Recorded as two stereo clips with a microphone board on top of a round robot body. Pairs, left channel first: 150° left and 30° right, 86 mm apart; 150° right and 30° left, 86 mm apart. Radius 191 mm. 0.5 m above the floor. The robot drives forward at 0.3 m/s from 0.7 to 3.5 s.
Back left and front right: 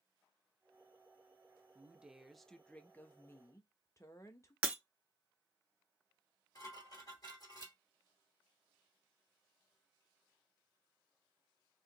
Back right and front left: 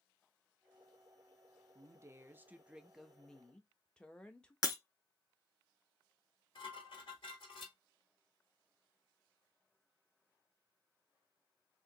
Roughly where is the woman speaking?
Ahead left.